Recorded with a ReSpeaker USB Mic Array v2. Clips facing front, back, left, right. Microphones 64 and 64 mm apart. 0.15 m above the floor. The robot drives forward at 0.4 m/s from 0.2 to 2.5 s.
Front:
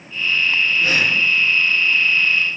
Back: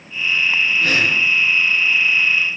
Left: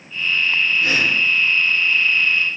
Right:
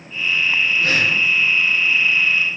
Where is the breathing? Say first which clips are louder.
Back 1 dB, even; 110° right, 1.8 m; by 1.2 s 120° right, 1.8 m.